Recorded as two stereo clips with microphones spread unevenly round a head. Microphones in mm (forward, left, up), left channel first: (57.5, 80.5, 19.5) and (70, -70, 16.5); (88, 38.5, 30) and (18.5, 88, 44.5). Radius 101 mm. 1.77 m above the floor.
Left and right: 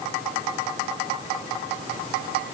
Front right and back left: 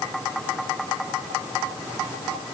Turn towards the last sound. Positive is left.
No sound to turn to.